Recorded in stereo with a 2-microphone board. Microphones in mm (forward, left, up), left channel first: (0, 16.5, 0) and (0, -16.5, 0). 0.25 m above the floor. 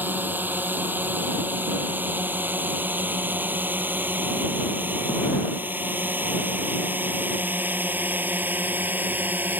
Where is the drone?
75° right (ahead or behind); by 9.6 s 70° right (ahead or behind).